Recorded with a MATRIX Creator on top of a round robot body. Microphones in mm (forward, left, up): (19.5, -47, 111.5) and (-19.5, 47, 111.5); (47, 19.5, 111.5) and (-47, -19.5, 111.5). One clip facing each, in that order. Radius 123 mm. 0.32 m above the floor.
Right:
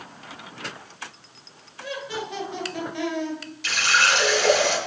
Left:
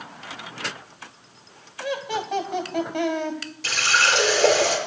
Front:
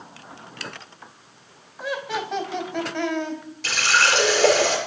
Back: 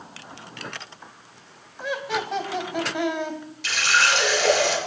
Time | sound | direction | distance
1.8 | laughter | 110° left | 3 m
3.6 | a running tap | 70° left | 4.5 m